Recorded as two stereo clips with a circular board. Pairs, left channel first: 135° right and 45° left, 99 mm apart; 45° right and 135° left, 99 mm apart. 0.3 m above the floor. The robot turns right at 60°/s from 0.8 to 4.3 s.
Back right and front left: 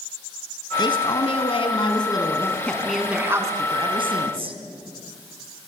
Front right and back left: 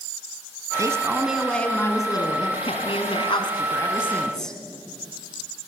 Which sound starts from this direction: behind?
A man speaking, at 0.8 s.